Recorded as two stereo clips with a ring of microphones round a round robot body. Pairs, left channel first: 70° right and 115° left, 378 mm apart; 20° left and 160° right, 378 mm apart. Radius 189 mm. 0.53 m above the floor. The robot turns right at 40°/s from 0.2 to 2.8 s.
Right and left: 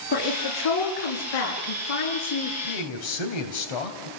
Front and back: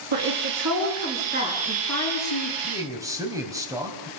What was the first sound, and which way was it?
A woman speaking, 130° right.